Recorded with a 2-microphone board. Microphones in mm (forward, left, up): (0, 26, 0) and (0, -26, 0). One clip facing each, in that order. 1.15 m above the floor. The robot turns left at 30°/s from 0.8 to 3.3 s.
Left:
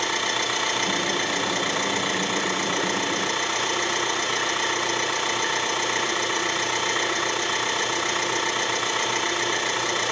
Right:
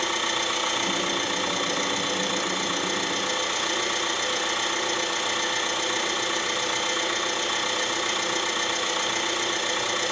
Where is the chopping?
No chopping in this recording.